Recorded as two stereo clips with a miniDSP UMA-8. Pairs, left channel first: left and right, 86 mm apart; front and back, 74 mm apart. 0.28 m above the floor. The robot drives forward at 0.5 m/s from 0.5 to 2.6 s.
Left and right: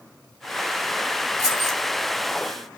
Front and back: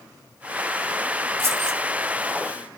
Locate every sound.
1.4 s keys jangling: 130° left, 1.4 m; by 1.8 s 135° left, 1.6 m